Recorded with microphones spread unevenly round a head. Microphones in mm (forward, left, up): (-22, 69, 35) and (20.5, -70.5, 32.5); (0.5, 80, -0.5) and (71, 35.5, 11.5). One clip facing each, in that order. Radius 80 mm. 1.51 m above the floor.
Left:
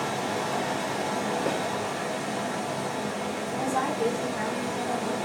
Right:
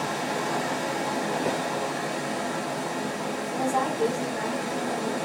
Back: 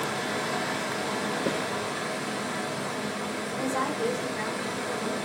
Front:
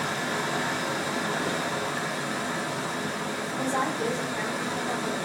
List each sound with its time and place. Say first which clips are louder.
0.0 s running water: even, front 1 dB; 80° right, 1.7 m
1.5 s a snare drum: even, back 1 dB; 155° right, 0.7 m
3.5 s a woman speaking: right 2 dB, front 1 dB; 85° right, 2 m